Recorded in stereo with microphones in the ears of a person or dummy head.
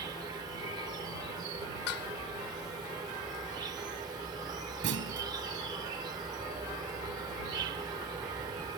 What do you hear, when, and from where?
0.0 s an insect: 20° right (ahead or behind)
1.9 s dishes clattering: 80° left
4.8 s a clunk: 65° right (ahead or behind)